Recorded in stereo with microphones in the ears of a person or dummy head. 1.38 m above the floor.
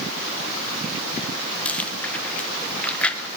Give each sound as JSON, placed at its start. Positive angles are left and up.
{"t": 1.6, "sound": "chewing", "side_deg": 10, "distance_m": 1.0}